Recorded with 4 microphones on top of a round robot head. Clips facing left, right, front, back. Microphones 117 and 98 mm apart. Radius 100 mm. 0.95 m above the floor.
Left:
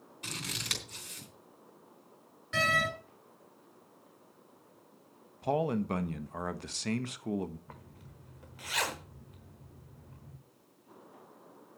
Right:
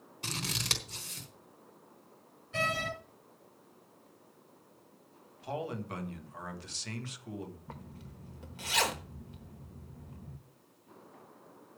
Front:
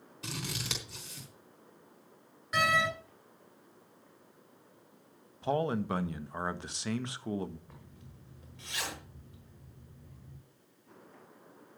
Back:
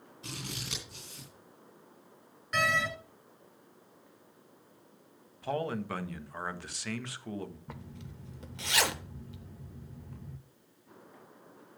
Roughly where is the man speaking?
Ahead left.